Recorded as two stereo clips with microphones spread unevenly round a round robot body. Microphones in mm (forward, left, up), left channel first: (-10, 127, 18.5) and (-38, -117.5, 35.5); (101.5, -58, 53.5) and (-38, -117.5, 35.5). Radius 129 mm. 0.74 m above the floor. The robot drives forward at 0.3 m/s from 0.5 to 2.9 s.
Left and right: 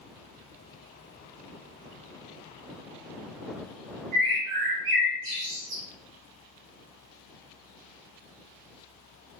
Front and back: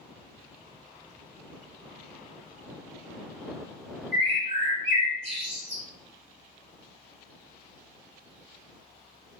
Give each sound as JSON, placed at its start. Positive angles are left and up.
{"t": 4.1, "sound": "a bird", "azimuth_deg": -105, "distance_m": 1.2}